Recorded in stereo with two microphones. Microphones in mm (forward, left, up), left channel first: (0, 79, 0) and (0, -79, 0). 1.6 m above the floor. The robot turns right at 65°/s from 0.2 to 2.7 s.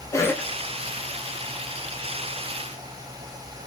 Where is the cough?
20° left (ahead or behind), 0.5 m; by 0.5 s centre (ahead or behind), 0.5 m.